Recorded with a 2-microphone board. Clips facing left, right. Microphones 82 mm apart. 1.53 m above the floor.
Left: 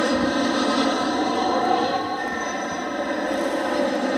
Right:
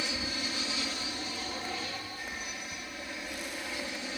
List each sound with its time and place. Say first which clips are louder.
0.0 s an aircraft: left 17 dB; 60° left (ahead or behind)